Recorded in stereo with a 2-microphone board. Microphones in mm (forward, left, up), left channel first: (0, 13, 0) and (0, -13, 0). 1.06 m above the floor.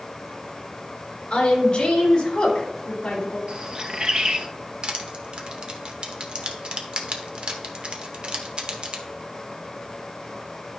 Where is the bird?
40° right (ahead or behind), 0.9 m.